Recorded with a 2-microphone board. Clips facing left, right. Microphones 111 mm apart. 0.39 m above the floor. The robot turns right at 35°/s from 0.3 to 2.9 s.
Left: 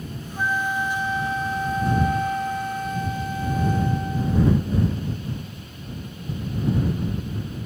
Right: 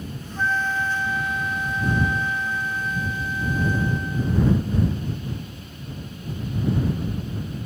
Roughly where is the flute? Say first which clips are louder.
Even; ahead.